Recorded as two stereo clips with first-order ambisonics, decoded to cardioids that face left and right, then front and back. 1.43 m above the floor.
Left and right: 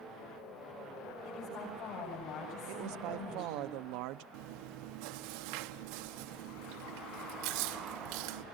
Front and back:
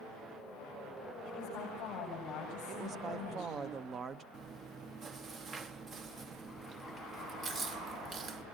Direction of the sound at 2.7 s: 110° right.